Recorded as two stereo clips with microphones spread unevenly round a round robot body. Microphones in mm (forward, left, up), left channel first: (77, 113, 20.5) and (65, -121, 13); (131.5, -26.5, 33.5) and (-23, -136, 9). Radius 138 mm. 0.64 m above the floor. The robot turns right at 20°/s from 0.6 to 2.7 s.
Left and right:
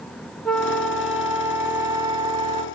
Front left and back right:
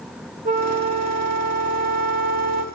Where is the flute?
170° left, 0.5 m; by 2.6 s 150° right, 0.5 m.